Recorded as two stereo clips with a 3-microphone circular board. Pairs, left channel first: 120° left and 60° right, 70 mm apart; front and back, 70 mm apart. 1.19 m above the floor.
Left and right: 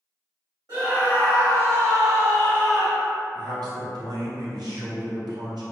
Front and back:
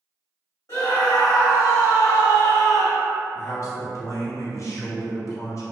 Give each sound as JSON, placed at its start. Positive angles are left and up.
{"t": 0.7, "sound": "a scream", "azimuth_deg": -40, "distance_m": 1.7}
{"t": 3.4, "sound": "a man speaking", "azimuth_deg": -45, "distance_m": 0.8}